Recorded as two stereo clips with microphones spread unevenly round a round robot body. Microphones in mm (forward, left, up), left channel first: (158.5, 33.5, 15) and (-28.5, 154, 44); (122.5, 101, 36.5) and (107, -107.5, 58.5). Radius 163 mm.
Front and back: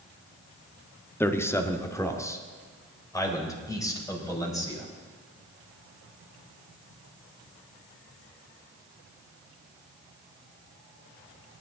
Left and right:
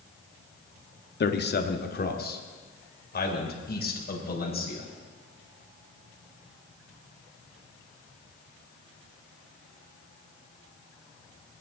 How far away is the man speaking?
About 1.4 m.